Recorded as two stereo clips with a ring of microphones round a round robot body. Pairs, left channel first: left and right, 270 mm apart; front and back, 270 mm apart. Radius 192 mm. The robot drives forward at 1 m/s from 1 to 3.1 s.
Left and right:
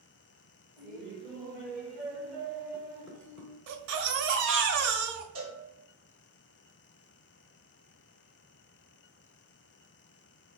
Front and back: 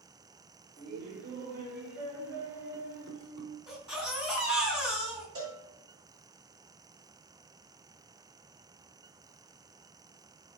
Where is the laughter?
Straight behind, 1.8 m.